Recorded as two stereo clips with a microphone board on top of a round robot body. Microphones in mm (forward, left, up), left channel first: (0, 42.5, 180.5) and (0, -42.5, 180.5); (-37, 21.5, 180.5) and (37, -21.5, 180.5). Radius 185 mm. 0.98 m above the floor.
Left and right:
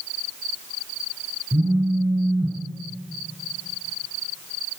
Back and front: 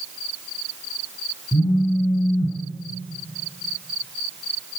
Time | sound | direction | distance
1.5 | a phone buzzing | 155° right | 8 m